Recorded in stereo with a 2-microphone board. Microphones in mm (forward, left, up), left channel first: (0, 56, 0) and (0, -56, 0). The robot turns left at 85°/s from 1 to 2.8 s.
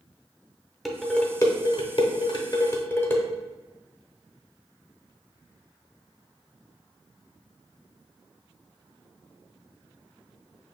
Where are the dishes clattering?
Centre (ahead or behind), 0.7 m; by 3.2 s 20° left (ahead or behind), 0.7 m.